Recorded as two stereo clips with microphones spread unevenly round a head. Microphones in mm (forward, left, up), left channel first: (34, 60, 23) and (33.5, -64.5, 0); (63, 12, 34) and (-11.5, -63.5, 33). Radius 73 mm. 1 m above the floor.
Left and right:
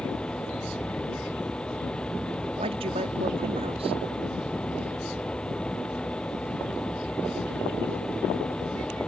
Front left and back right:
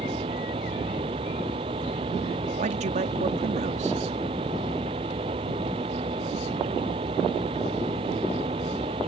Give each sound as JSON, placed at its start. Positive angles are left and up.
{"t": 0.0, "sound": "a fan", "azimuth_deg": 175}
{"t": 2.6, "sound": "a man speaking", "azimuth_deg": -140}